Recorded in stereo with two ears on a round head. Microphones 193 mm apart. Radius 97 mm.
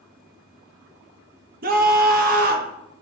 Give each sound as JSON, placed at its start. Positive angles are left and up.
{"t": 1.6, "sound": "a scream", "side_deg": -45, "distance_m": 1.0}